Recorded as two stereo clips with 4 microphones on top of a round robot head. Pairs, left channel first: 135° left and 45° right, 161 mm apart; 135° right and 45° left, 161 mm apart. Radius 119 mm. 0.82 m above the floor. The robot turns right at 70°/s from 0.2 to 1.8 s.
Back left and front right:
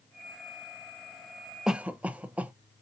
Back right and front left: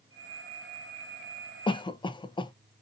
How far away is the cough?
About 0.5 m.